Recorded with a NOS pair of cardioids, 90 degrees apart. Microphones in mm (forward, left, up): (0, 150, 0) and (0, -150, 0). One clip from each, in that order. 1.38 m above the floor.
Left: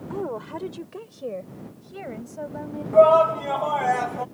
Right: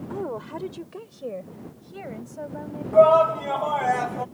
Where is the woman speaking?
5° left; by 2.8 s 10° left.